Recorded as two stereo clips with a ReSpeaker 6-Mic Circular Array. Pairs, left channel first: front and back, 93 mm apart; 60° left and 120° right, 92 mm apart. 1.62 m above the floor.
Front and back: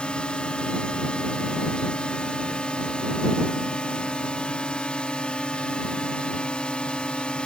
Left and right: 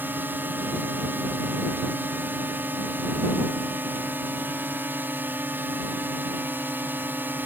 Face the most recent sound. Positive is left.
turn(degrees=-70)